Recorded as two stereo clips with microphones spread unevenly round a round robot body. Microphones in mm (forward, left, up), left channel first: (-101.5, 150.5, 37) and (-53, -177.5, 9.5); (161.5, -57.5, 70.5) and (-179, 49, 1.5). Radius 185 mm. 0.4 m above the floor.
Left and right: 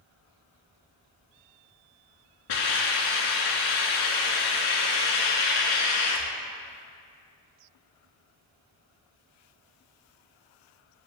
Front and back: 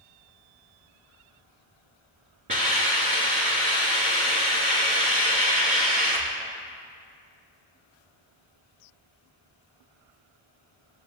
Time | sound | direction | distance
2.5 | a hiss | 90° left | 3.5 m